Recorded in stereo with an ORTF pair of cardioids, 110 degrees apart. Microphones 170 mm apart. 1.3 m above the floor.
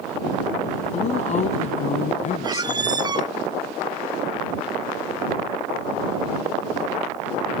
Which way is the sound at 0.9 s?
45° left.